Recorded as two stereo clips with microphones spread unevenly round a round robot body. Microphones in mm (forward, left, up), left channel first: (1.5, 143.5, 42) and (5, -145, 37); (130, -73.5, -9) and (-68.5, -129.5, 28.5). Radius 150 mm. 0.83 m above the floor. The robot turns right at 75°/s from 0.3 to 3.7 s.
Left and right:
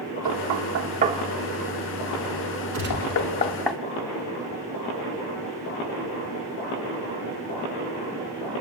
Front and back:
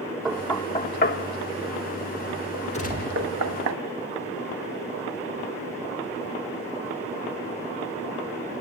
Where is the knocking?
75° right, 1.6 m; by 3.7 s straight behind, 1.6 m.